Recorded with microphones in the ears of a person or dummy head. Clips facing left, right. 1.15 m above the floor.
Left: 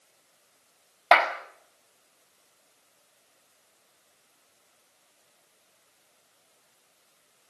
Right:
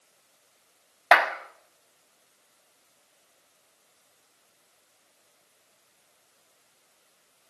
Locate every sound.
1.1 s a clap: 5° right (ahead or behind), 1.6 m